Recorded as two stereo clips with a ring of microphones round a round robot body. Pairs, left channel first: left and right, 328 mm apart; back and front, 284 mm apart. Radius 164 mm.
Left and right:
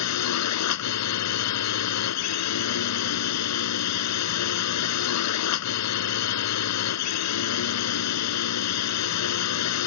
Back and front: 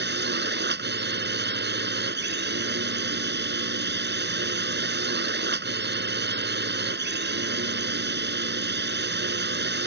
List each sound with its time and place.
0.0 s a drone: 50° left